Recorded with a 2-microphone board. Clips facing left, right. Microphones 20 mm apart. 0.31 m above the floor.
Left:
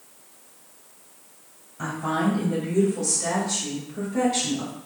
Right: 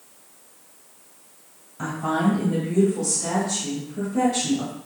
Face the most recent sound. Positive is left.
turn(degrees=35)  # may be behind; listen again after turning